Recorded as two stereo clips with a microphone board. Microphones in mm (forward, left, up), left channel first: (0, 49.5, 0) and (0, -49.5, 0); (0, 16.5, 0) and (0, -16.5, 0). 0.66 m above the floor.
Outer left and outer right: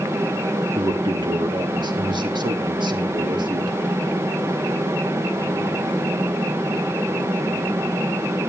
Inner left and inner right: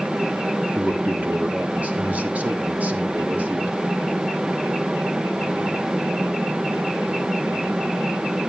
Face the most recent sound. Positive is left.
turn(degrees=-50)  # may be behind; listen again after turning